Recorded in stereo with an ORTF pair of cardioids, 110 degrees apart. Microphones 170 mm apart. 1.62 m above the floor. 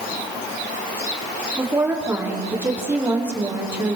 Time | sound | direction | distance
1.6 | a woman speaking | 15° right | 5 m